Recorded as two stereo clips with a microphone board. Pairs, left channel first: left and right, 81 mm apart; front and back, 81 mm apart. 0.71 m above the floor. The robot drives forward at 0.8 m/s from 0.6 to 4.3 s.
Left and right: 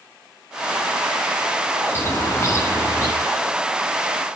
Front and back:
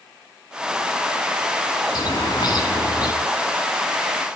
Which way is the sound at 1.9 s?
30° left.